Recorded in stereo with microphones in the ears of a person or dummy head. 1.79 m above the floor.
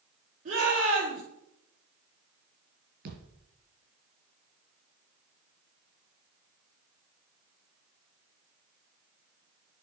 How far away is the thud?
About 4 m.